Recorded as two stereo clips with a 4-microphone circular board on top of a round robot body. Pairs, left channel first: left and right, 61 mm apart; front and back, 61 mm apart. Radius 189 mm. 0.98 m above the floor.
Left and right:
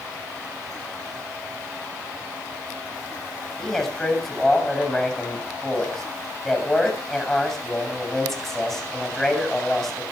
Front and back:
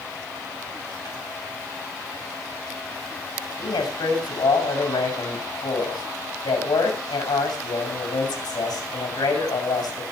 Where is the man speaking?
5° left, 7 m.